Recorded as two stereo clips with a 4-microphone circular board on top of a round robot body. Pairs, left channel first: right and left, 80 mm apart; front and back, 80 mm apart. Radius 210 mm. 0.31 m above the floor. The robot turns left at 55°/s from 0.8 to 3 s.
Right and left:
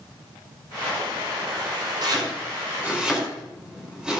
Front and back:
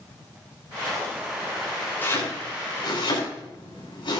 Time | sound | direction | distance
2.0 | chopping | 65° left | 6 m